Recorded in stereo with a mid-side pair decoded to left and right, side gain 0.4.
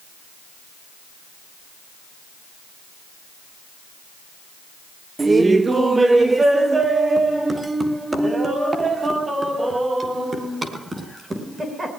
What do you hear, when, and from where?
5.2 s laughter: 25° right, 1.2 m; by 11.9 s 30° right, 6.5 m